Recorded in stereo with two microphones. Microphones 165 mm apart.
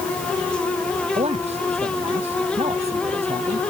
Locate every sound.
1.1 s a man speaking: 40° right (ahead or behind)